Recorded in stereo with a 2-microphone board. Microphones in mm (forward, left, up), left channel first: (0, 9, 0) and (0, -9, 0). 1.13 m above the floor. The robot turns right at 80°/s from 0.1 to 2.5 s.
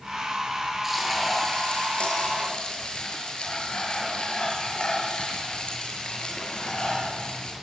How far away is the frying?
About 7 m.